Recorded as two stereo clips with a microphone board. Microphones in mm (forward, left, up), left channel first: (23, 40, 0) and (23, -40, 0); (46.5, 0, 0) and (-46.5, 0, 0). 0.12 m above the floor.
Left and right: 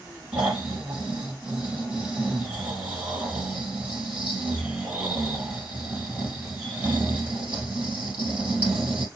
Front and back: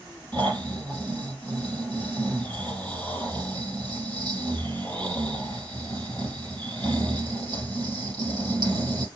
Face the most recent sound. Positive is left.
turn(degrees=-160)